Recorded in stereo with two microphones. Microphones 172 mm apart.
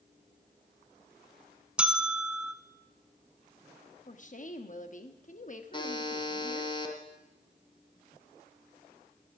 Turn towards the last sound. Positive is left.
turn(degrees=25)  # may be behind; listen again after turning